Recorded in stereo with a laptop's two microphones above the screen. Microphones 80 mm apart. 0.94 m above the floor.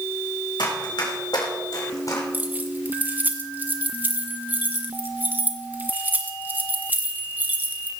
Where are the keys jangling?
20° right (ahead or behind), 1.8 m.